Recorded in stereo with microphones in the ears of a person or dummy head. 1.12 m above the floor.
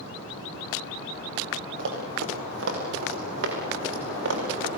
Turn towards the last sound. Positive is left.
turn(degrees=-75)  # may be behind; listen again after turning